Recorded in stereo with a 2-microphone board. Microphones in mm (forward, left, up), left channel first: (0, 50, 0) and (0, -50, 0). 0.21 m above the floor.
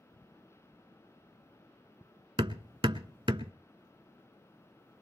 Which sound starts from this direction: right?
Hammering, at 2.4 s.